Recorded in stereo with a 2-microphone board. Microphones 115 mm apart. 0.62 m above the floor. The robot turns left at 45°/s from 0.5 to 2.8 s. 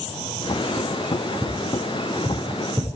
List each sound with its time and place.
1.4 s tapping: 80° right, 8 m; by 2.9 s 20° right (ahead or behind), 8 m